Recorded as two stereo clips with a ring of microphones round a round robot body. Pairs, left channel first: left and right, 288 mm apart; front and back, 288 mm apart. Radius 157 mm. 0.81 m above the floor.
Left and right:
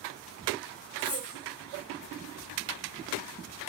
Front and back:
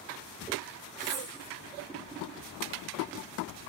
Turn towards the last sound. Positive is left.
turn(degrees=125)